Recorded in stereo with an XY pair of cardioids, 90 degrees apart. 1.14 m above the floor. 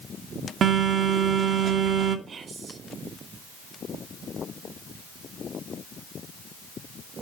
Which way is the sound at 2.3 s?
55° right.